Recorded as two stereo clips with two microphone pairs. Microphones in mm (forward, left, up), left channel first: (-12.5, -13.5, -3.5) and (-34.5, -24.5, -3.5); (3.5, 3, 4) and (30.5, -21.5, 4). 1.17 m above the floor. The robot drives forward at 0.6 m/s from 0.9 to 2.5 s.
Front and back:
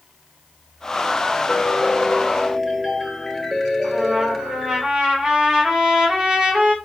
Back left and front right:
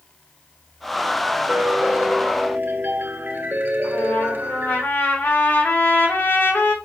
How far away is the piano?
About 2 m.